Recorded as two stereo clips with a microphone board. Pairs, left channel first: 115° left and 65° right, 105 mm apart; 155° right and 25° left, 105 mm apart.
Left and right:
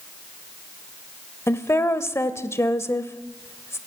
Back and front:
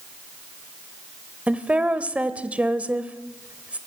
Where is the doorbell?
No doorbell in this recording.